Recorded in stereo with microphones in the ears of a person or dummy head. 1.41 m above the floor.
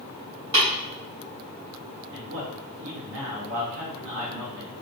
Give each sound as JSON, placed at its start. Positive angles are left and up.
{"t": 0.5, "sound": "tapping", "side_deg": -20, "distance_m": 1.5}
{"t": 2.1, "sound": "a man speaking", "side_deg": -75, "distance_m": 1.1}